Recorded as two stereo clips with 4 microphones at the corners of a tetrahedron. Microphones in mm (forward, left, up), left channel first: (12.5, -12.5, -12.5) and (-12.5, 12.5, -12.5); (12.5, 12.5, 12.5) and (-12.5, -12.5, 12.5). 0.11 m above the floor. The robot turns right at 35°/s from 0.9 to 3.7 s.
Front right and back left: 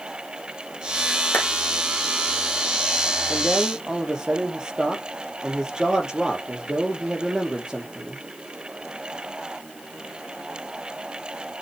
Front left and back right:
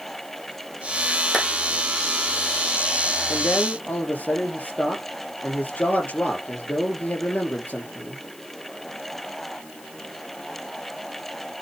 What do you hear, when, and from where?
1.3 s a clap: 30° right, 4 m; by 1.5 s 25° right, 4 m
3.3 s a man speaking: 55° left, 2.5 m; by 8.2 s 70° left, 2.5 m